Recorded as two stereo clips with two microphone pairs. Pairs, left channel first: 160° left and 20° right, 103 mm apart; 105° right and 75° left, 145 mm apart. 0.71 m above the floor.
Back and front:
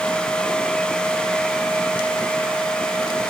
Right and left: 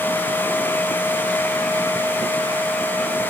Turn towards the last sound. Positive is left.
No sound to turn to.